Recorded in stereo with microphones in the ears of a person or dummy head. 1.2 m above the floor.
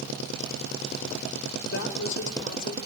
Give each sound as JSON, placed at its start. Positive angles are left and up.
{"t": 1.7, "sound": "a woman speaking", "side_deg": 60, "distance_m": 4.0}